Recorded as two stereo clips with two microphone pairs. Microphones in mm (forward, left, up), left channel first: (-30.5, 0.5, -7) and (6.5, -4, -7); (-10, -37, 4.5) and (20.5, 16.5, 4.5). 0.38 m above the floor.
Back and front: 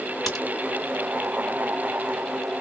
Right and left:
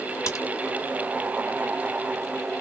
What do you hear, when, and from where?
0.3 s a crack: 90° right, 2.5 m